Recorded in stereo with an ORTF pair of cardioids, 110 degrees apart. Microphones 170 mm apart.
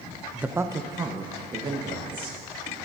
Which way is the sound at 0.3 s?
5° right.